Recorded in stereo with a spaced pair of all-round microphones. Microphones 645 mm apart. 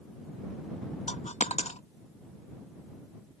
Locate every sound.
1.1 s a dropped coin: 10° left (ahead or behind)